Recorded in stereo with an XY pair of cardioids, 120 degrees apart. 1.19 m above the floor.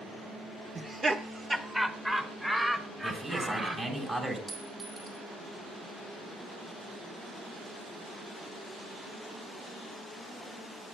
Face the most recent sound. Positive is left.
turn(degrees=-30)